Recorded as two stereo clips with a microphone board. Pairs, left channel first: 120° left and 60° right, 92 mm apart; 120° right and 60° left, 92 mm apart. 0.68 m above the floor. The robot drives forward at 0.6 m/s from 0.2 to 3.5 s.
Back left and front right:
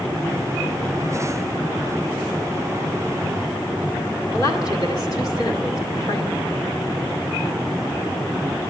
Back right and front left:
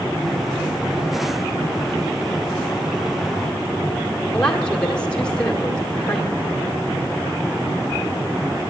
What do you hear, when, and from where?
4.3 s a woman speaking: 160° left, 1.9 m